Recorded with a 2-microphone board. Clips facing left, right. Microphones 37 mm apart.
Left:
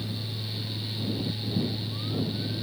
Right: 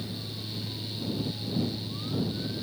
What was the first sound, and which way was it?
Only background noise.